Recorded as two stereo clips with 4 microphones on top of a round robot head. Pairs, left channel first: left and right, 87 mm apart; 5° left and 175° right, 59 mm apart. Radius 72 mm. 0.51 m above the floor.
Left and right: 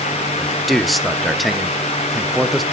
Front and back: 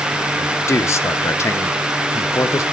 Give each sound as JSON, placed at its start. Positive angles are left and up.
{"t": 0.4, "sound": "a man speaking", "azimuth_deg": 0, "distance_m": 1.0}